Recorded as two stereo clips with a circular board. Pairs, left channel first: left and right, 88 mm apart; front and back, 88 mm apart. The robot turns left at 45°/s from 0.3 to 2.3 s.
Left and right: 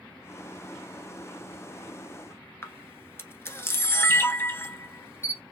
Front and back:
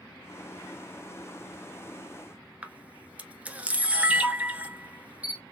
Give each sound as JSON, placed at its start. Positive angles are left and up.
{"t": 2.6, "sound": "a camera shutter", "azimuth_deg": 120, "distance_m": 1.0}